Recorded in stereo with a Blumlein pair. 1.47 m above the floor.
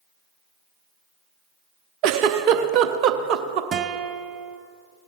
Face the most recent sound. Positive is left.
turn(degrees=-25)